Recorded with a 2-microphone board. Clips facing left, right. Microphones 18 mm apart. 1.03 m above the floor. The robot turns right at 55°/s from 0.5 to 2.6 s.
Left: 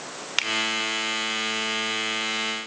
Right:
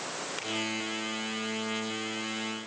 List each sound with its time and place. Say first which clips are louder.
0.4 s a finger snap: left 15 dB; 70° left (ahead or behind), 2.5 m